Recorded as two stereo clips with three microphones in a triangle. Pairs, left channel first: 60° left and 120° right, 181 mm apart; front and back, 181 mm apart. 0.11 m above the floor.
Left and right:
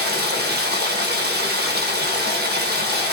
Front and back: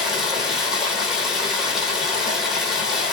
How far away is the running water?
About 1.1 m.